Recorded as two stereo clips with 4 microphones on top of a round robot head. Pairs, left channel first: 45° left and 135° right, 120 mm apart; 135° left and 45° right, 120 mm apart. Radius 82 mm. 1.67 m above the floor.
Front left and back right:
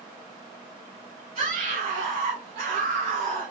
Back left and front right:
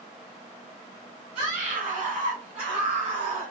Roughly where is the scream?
Right.